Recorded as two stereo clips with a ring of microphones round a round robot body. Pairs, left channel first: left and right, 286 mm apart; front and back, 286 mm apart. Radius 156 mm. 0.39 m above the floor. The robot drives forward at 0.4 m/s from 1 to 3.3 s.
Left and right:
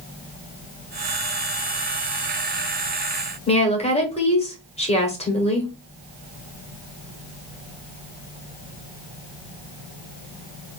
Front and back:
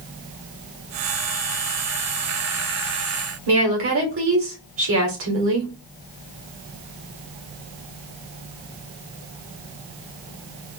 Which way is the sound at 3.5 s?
155° left.